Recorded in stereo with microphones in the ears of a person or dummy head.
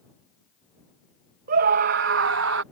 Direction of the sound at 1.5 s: 45° right (ahead or behind).